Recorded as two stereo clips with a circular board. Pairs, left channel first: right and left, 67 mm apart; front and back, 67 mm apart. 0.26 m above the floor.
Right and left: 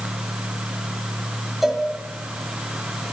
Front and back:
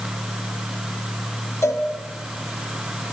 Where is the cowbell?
5° left, 1.1 m.